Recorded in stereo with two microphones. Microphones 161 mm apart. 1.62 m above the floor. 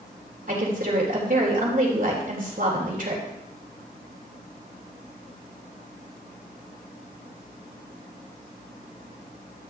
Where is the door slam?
I don't hear a door slam.